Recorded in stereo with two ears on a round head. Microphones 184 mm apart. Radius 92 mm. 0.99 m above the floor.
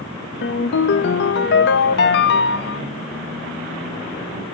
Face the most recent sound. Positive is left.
turn(degrees=55)  # may be behind; listen again after turning